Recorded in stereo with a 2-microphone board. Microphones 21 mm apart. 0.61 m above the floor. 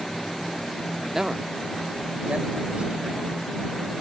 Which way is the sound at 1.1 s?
10° right (ahead or behind).